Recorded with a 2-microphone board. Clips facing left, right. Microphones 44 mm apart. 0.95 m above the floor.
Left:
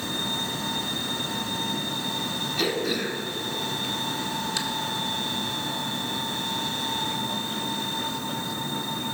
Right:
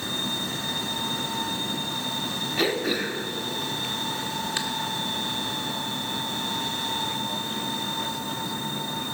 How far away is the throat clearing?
About 1.5 m.